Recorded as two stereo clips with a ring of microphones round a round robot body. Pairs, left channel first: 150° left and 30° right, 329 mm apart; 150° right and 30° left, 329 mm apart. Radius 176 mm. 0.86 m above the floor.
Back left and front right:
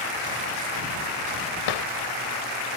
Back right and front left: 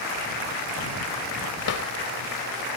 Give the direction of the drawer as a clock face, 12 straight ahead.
7 o'clock.